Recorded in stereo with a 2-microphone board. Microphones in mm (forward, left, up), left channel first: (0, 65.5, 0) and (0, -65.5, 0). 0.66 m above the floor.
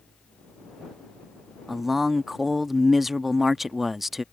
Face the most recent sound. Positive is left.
turn(degrees=0)  # may be behind; listen again after turning